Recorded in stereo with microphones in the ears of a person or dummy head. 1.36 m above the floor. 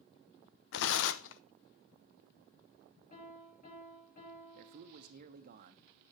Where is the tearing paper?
75° left (ahead or behind), 0.6 m.